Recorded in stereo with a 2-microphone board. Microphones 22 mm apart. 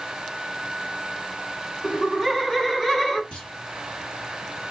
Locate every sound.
1.8 s laughter: centre (ahead or behind), 1.5 m; by 3.2 s 20° left (ahead or behind), 1.2 m
3.3 s a clunk: 55° left (ahead or behind), 2.5 m